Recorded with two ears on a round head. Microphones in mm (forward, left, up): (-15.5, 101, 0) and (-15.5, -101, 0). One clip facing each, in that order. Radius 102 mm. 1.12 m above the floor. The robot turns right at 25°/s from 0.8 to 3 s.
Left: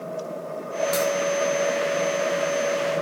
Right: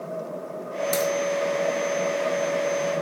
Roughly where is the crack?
Right.